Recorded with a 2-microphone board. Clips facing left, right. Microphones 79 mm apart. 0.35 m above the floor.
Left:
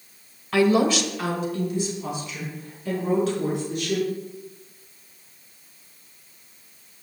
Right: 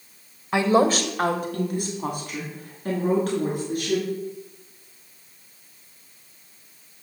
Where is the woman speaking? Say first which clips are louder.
Even; 20° right (ahead or behind), 1.3 m; by 4.1 s 45° right (ahead or behind), 5.5 m.